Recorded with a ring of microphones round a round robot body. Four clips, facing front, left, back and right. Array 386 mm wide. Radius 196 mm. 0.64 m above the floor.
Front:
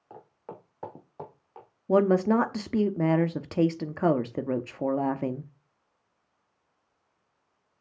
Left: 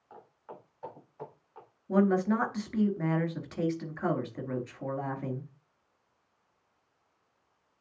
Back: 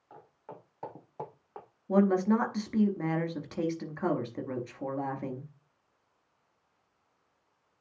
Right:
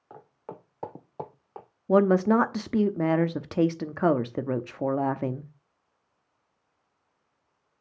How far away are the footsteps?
About 2.0 m.